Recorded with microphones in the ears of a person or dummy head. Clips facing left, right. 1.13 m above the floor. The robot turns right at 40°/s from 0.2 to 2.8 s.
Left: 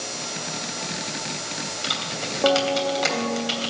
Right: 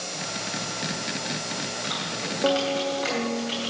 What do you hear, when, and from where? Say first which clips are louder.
1.8 s typing on a keyboard: even; 55° left (ahead or behind), 3 m; by 3.7 s 80° left, 3 m